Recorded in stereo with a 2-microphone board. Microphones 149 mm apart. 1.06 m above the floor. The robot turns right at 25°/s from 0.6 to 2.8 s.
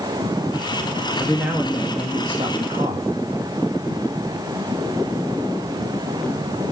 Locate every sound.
1.2 s a man speaking: straight behind, 1.6 m; by 3.1 s 140° right, 1.6 m